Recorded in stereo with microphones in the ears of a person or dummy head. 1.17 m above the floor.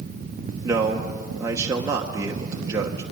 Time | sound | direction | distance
0.6 | a man speaking | 20° right (ahead or behind) | 1.0 m